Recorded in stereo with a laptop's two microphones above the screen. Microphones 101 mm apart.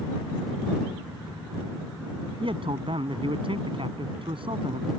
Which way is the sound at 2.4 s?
60° right (ahead or behind).